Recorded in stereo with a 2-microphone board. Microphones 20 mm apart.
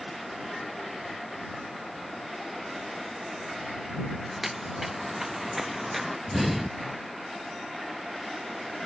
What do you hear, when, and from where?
4.3 s footsteps: 20° right (ahead or behind); by 6.2 s 15° right (ahead or behind)
6.3 s breathing: 10° right (ahead or behind)